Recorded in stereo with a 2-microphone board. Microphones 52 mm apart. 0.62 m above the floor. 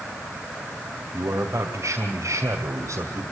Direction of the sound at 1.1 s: 65° right (ahead or behind).